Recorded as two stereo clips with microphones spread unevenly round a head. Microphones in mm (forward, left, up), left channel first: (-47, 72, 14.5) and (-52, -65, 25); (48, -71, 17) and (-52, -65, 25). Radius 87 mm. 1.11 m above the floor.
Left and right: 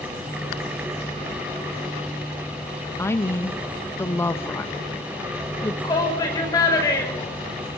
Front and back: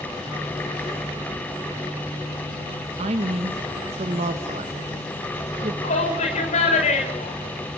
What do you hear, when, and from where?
3.0 s a woman speaking: 155° left, 1.5 m
5.8 s a shout: 15° left, 5 m